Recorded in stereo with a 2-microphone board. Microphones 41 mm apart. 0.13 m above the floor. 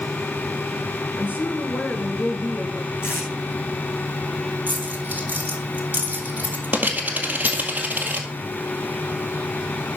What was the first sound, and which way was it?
A woman speaking, 45° left (ahead or behind).